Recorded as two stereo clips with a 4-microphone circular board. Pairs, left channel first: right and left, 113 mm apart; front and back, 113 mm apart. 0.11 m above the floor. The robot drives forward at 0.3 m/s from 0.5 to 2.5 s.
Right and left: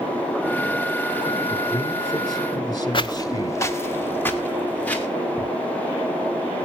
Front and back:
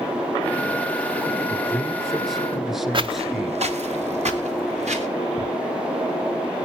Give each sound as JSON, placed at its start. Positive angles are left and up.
{"t": 1.5, "sound": "a man speaking", "azimuth_deg": -80, "distance_m": 1.9}
{"t": 2.9, "sound": "footsteps", "azimuth_deg": -135, "distance_m": 0.8}
{"t": 5.4, "sound": "ticking", "azimuth_deg": 150, "distance_m": 8.5}